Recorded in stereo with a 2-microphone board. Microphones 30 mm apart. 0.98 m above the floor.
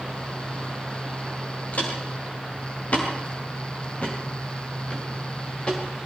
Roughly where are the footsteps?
Left.